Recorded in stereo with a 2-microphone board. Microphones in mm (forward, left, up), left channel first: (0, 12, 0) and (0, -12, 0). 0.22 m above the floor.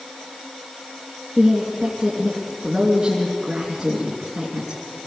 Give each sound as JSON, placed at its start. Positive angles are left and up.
{"t": 1.4, "sound": "a woman speaking", "side_deg": -15, "distance_m": 3.0}